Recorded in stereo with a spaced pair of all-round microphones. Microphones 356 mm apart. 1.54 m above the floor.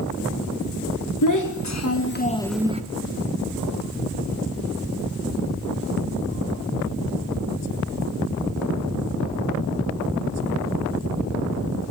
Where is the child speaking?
60° left (ahead or behind), 1.2 m; by 2.8 s 20° right (ahead or behind), 0.6 m.